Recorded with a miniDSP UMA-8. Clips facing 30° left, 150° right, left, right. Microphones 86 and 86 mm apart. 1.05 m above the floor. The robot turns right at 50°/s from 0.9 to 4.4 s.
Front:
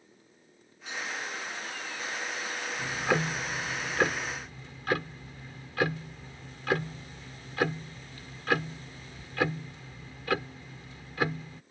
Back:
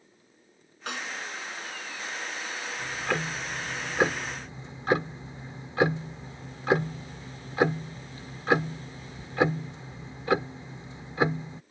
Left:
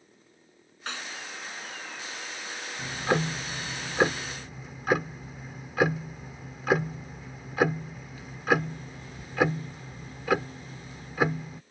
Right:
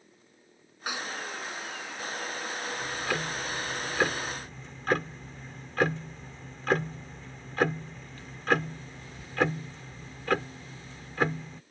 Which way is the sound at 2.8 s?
85° left.